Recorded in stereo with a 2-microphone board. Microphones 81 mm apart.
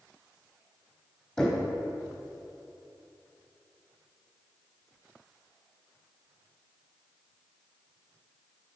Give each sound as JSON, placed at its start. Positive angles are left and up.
{"t": 1.4, "sound": "knocking", "side_deg": 10, "distance_m": 3.0}